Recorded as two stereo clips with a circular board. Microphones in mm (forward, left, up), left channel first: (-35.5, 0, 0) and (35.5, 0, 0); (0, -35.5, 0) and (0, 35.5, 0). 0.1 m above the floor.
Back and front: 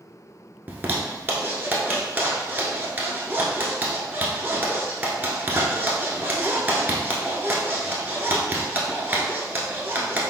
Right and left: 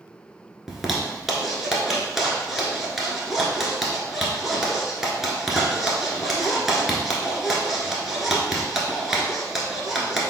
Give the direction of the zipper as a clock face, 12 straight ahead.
12 o'clock.